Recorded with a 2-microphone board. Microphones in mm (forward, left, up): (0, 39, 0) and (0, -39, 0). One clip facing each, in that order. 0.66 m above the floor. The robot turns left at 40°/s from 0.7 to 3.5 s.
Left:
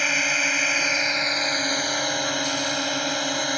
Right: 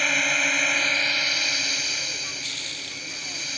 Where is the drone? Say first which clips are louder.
Even; 175° left; by 3.6 s 65° left.